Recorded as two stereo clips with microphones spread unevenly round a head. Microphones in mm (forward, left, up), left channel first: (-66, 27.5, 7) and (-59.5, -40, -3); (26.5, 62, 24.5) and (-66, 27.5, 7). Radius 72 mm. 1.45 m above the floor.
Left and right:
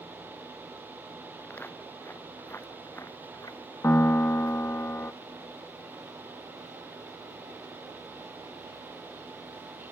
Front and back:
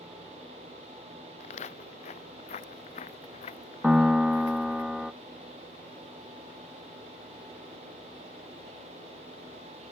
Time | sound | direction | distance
1.4 | footsteps | 15° left | ?
3.8 | a piano | 110° left | ?